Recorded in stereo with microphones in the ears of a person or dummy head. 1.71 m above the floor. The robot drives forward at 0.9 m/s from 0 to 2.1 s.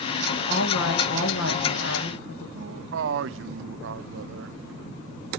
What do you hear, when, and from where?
0.5 s a woman speaking: 70° left (ahead or behind), 2 m
2.5 s a man speaking: 75° right (ahead or behind), 0.8 m